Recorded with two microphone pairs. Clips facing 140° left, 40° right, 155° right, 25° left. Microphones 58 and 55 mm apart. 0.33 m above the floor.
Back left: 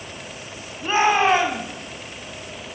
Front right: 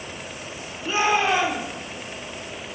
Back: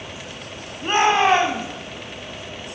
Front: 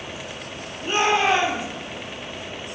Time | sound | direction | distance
0.8 | a shout | 170° left | 2.5 m